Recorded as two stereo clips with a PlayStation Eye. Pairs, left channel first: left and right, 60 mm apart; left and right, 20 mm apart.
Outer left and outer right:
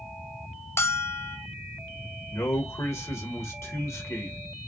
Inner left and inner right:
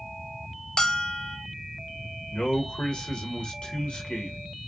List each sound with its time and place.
0.8 s a bell: 45° left (ahead or behind), 0.7 m
2.3 s a man speaking: 50° left (ahead or behind), 1.6 m